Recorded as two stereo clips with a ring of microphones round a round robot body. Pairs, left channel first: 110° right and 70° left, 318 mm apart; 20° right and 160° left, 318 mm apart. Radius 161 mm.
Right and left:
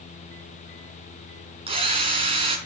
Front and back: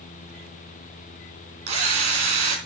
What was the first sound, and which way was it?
A drill, 140° left.